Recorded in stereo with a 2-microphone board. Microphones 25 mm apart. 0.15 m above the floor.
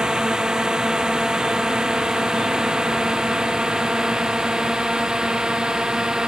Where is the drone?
30° right (ahead or behind).